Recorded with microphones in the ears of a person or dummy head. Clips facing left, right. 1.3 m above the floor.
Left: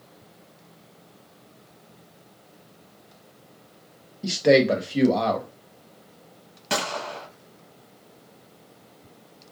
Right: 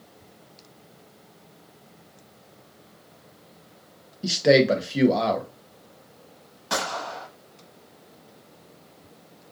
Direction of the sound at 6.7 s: 30° left (ahead or behind).